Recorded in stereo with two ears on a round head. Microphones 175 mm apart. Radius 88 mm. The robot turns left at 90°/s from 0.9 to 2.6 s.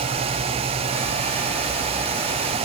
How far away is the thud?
I don't hear a thud.